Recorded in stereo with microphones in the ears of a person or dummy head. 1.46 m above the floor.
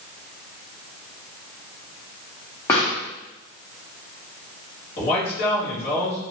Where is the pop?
15° left (ahead or behind), 1.0 m.